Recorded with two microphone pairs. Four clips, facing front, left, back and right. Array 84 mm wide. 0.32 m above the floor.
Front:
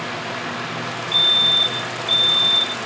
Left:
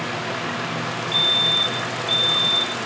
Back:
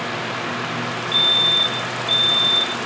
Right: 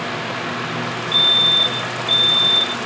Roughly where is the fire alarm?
Behind right.